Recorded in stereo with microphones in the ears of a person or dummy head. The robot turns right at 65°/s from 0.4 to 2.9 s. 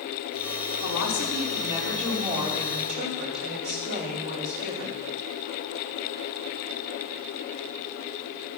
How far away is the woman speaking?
About 4.5 m.